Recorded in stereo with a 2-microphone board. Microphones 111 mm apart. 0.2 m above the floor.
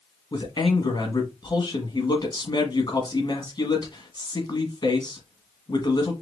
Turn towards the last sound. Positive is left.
turn(degrees=40)  # may be behind; listen again after turning